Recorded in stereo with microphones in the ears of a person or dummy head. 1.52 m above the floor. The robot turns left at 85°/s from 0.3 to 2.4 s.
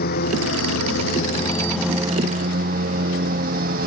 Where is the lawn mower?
130° left; by 3.9 s 50° right.